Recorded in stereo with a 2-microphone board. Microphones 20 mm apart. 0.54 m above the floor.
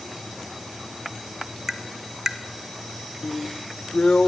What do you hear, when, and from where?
1.7 s tapping: 20° right (ahead or behind), 1.6 m
3.2 s a drill: 65° left (ahead or behind), 1.1 m